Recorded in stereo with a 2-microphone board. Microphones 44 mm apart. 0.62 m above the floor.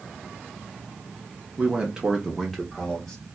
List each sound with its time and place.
1.6 s a man speaking: 25° right (ahead or behind), 0.9 m; by 3.2 s 15° left (ahead or behind), 1.4 m